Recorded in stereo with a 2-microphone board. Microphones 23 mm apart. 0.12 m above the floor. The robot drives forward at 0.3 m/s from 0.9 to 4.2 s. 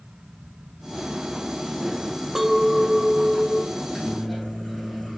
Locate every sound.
2.4 s a clink: 20° right (ahead or behind), 0.7 m; by 3.7 s 15° right (ahead or behind), 0.9 m
3.8 s a microwave: centre (ahead or behind), 3 m